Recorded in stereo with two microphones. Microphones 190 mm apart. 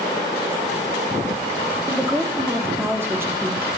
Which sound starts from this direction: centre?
A woman speaking, at 1.9 s.